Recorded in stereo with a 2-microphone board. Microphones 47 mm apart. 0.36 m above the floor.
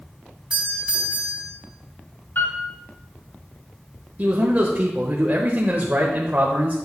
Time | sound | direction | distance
0.5 | a doorbell | 20° right (ahead or behind) | 3 m
2.4 | a piano | 50° left (ahead or behind) | 3.5 m
4.2 | a man speaking | 35° right (ahead or behind) | 1.0 m